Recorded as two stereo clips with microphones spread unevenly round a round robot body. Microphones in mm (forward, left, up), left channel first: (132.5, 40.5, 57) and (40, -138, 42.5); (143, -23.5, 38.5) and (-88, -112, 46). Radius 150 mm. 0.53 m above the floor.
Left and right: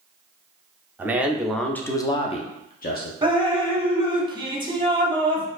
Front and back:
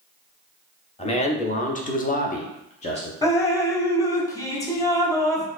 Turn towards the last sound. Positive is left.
turn(degrees=-55)